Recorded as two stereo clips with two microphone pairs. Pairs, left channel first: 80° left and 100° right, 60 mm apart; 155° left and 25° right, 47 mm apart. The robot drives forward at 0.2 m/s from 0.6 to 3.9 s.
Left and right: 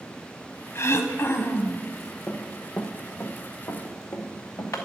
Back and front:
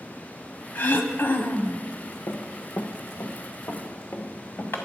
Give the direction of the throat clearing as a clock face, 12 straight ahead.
8 o'clock.